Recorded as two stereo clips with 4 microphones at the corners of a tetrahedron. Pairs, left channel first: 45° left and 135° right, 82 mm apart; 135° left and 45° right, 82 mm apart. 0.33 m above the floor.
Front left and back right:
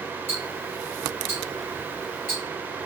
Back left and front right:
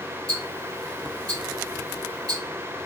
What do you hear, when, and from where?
0.3 s ticking: 80° right, 2.5 m